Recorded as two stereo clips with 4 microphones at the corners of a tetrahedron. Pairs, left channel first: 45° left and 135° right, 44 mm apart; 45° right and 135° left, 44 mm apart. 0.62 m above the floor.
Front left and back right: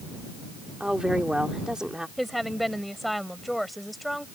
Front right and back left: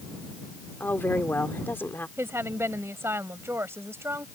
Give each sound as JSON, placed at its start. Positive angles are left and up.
{"t": 0.8, "sound": "a woman speaking", "azimuth_deg": -65}
{"t": 2.2, "sound": "a woman speaking", "azimuth_deg": 130}